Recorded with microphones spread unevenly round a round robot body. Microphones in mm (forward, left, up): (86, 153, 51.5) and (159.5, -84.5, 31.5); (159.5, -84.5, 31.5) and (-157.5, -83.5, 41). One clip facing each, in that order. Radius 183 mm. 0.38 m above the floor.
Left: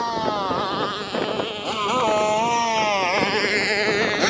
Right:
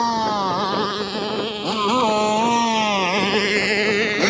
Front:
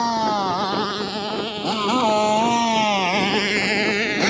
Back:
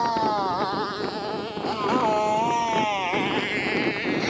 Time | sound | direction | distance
0.0 | a motorcycle | 40° right | ?